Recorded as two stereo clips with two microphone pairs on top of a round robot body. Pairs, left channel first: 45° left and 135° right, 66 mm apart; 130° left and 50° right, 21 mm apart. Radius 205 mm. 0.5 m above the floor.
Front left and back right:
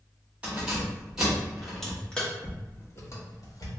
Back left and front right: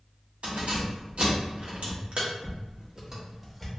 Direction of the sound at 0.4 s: 60° right.